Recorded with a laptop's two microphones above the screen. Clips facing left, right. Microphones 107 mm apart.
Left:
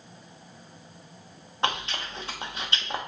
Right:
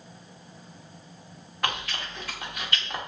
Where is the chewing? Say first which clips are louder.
Left 2 dB; 25° left (ahead or behind), 0.6 m.